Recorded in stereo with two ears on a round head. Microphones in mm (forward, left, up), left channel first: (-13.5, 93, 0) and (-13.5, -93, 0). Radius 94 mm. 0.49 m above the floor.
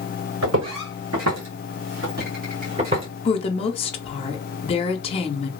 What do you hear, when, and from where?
0.4 s footsteps: 75° right (ahead or behind), 2 m; by 3.1 s 25° right (ahead or behind), 2 m
3.2 s a woman speaking: 30° left (ahead or behind), 0.7 m